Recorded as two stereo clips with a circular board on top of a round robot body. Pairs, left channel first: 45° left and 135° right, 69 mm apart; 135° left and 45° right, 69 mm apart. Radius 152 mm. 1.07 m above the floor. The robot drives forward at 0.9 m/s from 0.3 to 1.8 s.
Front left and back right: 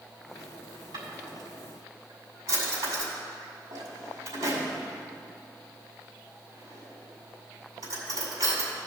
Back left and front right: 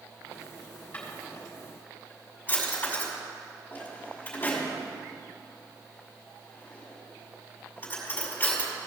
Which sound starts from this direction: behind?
A drawer, at 0.9 s.